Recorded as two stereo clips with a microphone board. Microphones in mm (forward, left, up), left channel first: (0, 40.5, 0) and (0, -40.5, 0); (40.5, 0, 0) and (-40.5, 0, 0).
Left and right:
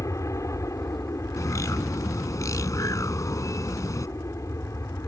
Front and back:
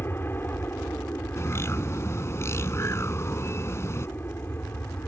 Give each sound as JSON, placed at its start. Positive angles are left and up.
{"t": 0.0, "sound": "an aircraft", "azimuth_deg": 55}
{"t": 1.4, "sound": "a bird", "azimuth_deg": 50}